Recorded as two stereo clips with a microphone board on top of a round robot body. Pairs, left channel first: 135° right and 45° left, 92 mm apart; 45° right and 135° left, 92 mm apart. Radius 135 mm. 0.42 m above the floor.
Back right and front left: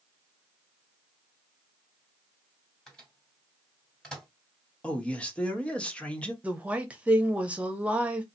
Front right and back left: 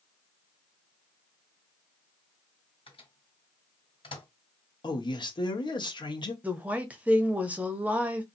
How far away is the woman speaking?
About 1.1 m.